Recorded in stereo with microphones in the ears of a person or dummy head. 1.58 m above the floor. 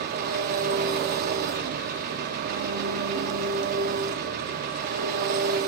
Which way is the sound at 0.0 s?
45° right (ahead or behind).